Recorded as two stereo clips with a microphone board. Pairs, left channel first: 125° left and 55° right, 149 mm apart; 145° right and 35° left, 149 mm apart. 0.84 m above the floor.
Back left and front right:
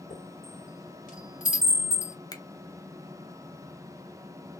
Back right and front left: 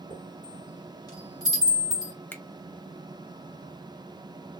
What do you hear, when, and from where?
0.1 s a chime: 150° left, 2 m
2.3 s a finger snap: 150° left, 0.6 m